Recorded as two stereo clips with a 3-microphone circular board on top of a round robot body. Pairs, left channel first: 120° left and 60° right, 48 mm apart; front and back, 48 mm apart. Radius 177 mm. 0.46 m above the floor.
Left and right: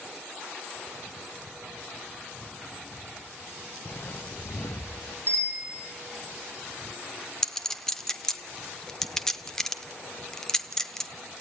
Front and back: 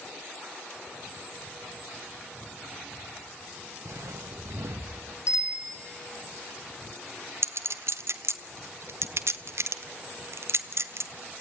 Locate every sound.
3.9 s footsteps: 165° left, 1.4 m; by 5.2 s 135° left, 1.7 m
5.3 s a bicycle bell: 20° right, 6.5 m
7.4 s a clink: 160° right, 1.1 m